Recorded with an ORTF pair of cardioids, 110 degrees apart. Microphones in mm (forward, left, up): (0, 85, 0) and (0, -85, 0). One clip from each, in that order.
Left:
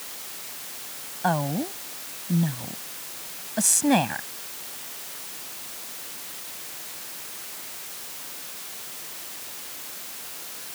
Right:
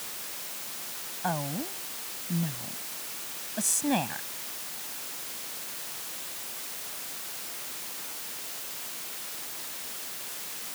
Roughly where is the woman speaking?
Ahead left.